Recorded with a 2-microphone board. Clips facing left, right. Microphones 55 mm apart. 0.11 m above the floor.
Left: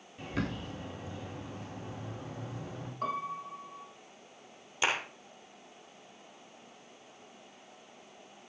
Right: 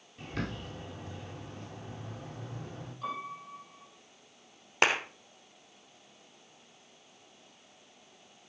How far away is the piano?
About 4 m.